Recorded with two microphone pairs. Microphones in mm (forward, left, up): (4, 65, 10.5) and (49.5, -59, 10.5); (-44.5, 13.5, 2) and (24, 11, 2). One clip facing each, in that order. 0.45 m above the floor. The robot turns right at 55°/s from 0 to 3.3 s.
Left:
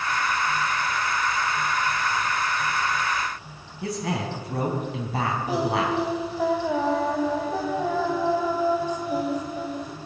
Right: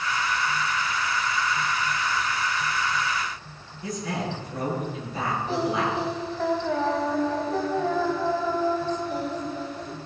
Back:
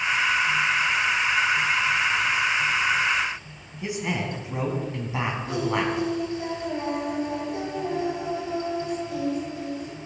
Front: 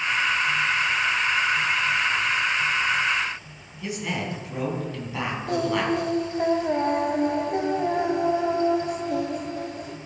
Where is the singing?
30° left, 1.5 m.